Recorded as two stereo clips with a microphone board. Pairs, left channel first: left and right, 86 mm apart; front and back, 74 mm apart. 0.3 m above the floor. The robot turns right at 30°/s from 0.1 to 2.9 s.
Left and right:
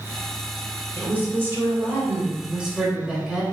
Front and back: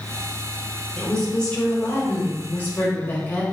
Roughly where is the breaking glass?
I don't hear breaking glass.